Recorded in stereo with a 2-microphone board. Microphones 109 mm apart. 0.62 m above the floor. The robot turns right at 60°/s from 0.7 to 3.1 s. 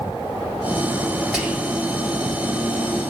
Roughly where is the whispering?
Centre.